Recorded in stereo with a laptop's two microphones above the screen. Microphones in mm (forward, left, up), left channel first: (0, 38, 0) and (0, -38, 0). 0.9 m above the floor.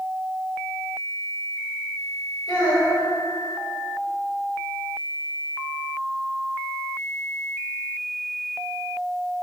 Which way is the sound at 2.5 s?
60° left (ahead or behind).